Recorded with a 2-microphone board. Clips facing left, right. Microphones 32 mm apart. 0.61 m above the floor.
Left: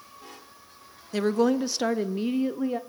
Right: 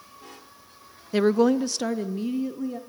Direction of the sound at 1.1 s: 20° right (ahead or behind).